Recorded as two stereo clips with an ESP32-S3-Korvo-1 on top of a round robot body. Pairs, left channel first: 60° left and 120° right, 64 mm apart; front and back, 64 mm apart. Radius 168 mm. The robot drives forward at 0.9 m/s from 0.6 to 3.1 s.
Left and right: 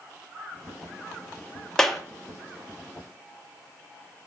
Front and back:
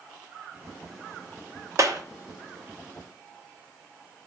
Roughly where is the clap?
Behind left.